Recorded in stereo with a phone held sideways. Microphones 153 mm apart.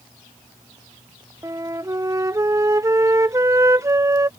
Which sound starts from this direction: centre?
A flute, at 1.4 s.